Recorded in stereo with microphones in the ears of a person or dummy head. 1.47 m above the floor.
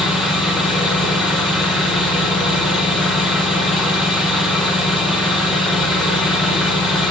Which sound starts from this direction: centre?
An engine running, at 0.0 s.